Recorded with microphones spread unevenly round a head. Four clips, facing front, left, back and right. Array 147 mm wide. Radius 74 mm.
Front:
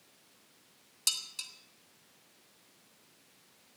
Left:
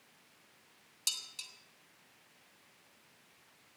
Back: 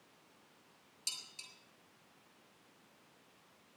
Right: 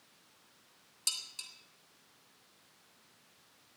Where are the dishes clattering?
Straight ahead, 3 m.